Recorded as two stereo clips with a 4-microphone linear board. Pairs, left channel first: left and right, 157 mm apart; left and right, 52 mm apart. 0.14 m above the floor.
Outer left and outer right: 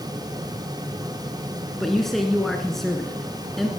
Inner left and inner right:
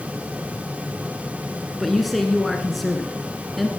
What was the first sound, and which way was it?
A man speaking, centre (ahead or behind).